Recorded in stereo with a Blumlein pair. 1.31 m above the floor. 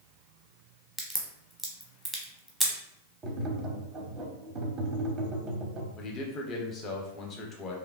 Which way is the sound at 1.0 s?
Straight ahead.